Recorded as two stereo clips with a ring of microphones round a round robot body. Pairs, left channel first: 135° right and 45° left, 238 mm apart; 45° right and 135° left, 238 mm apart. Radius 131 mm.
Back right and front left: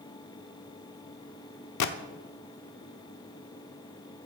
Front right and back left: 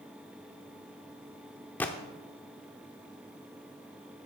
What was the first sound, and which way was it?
A gunshot, 130° right.